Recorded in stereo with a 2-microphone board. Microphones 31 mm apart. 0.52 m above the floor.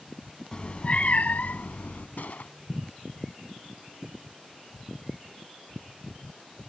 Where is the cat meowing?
30° left (ahead or behind); by 2.1 s 60° left (ahead or behind).